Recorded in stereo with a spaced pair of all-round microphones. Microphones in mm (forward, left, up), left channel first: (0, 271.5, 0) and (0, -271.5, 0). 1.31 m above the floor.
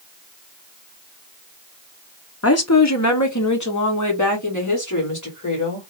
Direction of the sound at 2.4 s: 25° left (ahead or behind).